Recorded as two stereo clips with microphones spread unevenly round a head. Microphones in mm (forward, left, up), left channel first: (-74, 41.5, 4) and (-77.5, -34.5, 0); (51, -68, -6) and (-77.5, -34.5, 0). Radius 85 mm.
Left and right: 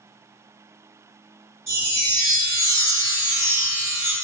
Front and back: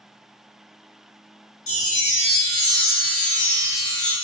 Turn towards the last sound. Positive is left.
turn(degrees=-30)